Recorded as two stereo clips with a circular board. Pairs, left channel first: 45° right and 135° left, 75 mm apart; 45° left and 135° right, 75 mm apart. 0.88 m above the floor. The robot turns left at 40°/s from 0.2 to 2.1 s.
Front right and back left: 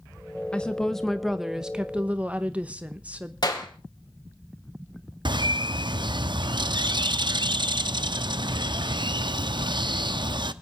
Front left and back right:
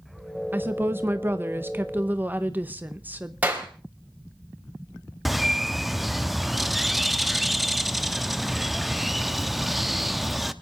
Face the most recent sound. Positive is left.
turn(degrees=135)